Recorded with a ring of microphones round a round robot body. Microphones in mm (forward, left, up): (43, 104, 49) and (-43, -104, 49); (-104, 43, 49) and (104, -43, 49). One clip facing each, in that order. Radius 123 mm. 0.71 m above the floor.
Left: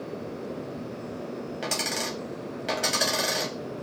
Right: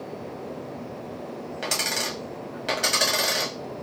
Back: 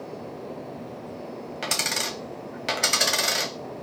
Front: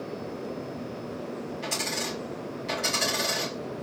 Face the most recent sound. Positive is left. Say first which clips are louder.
# even, even
turn(degrees=160)